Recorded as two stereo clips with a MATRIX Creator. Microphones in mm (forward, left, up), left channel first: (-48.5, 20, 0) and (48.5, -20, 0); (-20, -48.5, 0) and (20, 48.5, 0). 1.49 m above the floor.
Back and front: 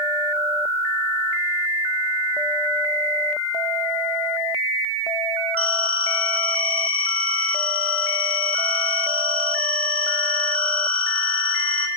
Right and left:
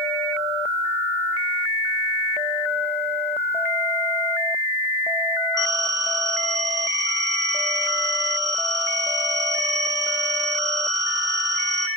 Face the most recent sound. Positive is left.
turn(degrees=125)